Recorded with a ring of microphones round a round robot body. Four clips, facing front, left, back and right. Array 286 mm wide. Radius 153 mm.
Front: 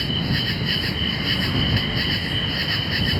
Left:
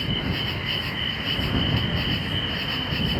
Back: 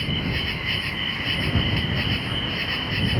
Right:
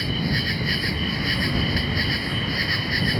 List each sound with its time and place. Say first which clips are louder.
0.0 s an insect: right 3 dB, front 3 dB; 50° right